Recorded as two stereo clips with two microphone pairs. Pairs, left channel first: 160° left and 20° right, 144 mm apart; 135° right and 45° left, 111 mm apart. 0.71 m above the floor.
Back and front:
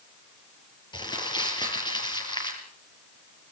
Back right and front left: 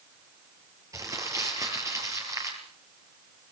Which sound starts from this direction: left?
Crumpling, at 0.9 s.